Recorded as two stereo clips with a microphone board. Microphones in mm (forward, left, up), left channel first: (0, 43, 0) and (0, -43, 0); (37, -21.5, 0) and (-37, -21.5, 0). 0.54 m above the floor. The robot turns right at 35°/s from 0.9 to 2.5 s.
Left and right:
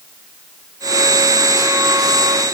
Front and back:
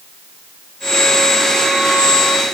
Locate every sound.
Only background noise.